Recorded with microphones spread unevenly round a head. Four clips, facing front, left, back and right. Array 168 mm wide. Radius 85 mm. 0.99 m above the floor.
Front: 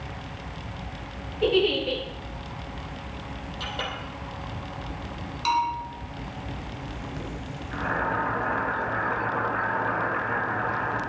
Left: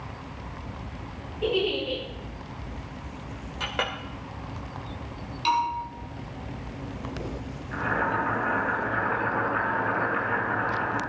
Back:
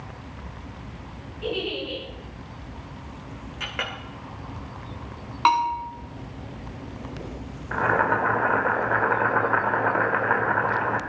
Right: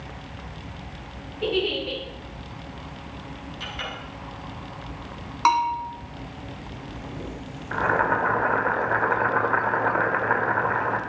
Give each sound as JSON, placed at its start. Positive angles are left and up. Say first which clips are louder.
{"t": 1.4, "sound": "a giggle", "louder": "even, front 7 dB", "azimuth_deg": -10, "distance_m": 6.0}
{"t": 3.6, "sound": "a clink", "louder": "left 6 dB, back 1 dB", "azimuth_deg": 90, "distance_m": 1.9}
{"t": 5.5, "sound": "a bell", "louder": "right 4 dB, back 4 dB", "azimuth_deg": -140, "distance_m": 2.5}
{"t": 7.7, "sound": "boiling", "louder": "right 5 dB, back 6 dB", "azimuth_deg": -140, "distance_m": 1.8}